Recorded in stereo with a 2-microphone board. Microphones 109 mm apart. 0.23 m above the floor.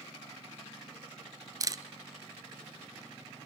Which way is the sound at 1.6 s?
30° right (ahead or behind).